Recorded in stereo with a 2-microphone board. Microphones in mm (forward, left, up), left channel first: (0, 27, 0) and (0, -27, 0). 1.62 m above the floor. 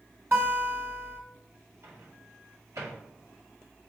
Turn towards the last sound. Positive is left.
turn(degrees=-70)  # may be behind; listen again after turning